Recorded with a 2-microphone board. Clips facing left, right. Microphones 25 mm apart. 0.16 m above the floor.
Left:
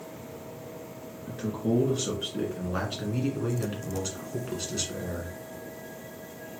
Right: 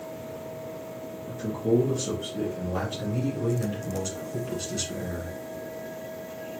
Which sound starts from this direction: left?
A man speaking, at 1.3 s.